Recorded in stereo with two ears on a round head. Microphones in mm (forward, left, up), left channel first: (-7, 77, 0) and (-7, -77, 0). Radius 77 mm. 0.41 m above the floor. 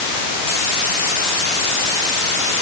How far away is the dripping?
I don't hear dripping.